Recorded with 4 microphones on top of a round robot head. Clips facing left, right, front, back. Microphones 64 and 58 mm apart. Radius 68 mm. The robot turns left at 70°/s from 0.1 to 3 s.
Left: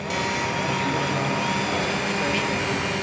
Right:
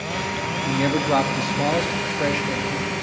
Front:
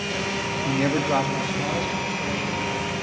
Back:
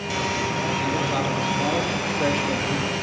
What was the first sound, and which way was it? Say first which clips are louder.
A man speaking: right 3 dB, front 1 dB; 35° right.